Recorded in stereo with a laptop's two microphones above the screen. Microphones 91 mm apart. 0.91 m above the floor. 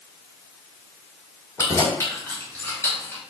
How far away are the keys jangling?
About 2.5 m.